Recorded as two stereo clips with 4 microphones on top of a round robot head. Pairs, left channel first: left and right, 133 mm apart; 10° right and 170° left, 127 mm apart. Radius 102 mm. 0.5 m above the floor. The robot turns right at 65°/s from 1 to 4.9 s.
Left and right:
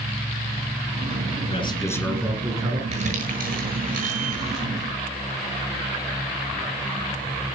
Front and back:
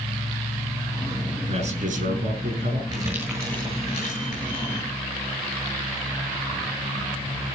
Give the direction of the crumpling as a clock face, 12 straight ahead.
4 o'clock.